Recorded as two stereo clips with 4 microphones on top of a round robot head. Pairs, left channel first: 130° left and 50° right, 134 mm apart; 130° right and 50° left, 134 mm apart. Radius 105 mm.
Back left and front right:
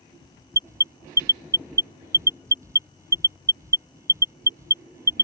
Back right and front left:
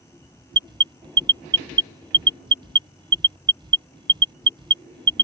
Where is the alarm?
10° left.